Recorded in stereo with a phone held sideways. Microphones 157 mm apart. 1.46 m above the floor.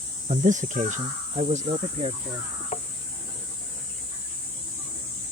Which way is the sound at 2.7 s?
45° left (ahead or behind).